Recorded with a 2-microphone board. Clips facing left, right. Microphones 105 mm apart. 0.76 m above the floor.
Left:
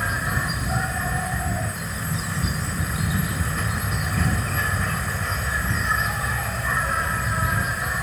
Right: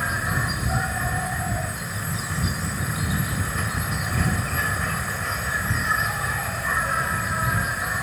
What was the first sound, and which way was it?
An insect, centre (ahead or behind).